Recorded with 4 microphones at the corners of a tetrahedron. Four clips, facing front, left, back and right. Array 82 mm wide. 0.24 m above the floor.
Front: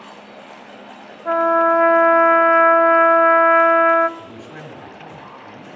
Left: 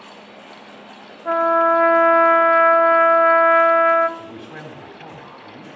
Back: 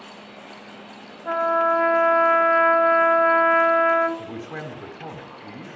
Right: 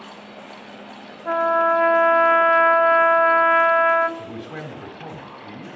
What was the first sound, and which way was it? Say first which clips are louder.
A trumpet: left 3 dB, front 5 dB; 25° left.